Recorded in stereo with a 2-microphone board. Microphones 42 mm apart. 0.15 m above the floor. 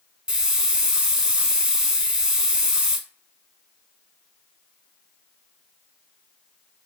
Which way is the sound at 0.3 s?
20° right (ahead or behind).